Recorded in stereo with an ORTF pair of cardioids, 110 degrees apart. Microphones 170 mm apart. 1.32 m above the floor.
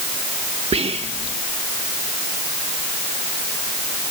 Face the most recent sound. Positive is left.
turn(degrees=-40)